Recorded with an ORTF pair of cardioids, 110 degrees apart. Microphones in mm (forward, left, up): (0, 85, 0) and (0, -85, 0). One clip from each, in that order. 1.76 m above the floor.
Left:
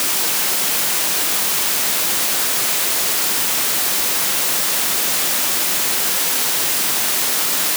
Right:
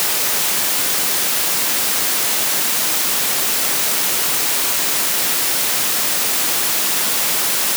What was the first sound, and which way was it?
Only background noise.